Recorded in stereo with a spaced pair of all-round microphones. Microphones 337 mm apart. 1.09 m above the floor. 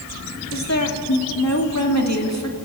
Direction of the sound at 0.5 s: 50° left (ahead or behind).